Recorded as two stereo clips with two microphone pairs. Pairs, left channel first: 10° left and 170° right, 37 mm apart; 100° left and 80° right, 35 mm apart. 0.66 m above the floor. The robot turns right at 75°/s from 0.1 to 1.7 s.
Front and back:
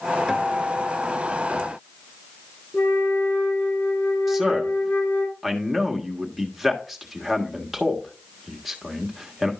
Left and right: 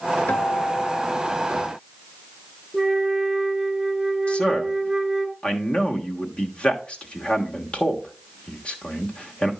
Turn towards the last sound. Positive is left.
turn(degrees=110)